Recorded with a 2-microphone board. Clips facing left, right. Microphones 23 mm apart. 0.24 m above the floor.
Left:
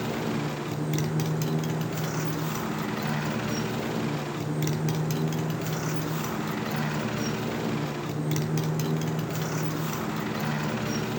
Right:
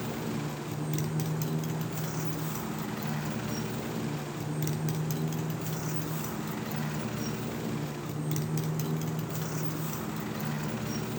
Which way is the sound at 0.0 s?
30° left (ahead or behind).